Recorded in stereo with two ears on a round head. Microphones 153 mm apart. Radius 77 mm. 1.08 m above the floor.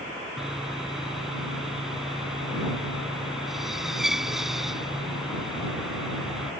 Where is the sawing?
5° right (ahead or behind).